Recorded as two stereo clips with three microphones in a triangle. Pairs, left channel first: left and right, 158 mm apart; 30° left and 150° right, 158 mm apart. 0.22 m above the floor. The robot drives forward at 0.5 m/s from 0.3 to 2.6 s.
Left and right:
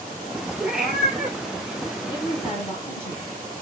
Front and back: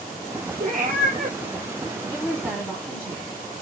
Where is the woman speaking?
100° left, 1.7 m; by 3.6 s 115° left, 1.7 m.